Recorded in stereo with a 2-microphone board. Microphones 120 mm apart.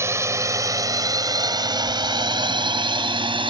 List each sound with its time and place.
0.0 s a drone: 25° right (ahead or behind); by 3.5 s 45° right (ahead or behind)